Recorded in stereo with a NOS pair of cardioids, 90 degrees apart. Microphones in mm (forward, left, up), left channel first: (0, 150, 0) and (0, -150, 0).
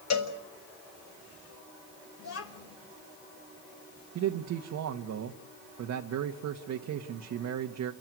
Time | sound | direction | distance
0.1 | a cowbell | 65° left | 6.5 m
2.2 | a child speaking | 55° left | 5.5 m
4.2 | a man speaking | 65° right | 1.7 m